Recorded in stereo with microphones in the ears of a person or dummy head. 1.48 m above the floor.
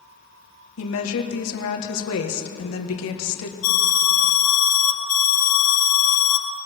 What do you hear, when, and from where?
0.8 s a woman speaking: 85° left, 1.6 m
3.6 s an alarm: 40° left (ahead or behind), 4 m